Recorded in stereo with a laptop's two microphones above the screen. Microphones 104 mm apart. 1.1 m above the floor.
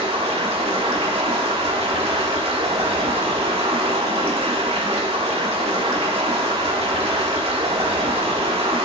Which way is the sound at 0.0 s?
65° right (ahead or behind).